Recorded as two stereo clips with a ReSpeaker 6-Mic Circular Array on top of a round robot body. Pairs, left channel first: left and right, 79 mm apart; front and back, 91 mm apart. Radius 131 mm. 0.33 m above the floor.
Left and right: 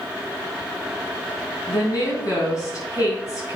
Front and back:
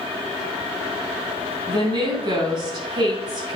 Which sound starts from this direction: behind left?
A woman speaking, at 1.7 s.